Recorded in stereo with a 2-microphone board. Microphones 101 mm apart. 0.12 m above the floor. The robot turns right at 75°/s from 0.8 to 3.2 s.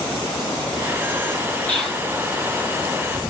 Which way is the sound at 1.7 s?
15° left (ahead or behind).